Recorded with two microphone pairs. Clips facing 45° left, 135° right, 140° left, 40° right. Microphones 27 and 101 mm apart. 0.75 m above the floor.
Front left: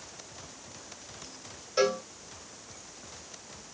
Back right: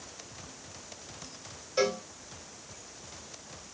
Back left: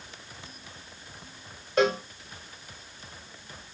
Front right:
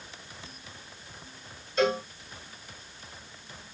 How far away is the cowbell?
About 2.0 m.